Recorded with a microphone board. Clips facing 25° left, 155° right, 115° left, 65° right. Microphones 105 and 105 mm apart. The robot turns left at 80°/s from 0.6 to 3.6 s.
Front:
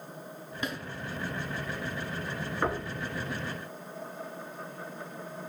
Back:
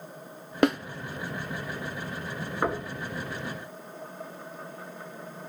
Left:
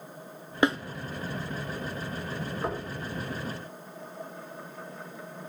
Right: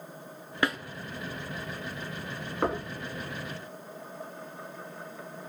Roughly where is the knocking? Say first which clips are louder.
Back 2 dB, right 6 dB; right.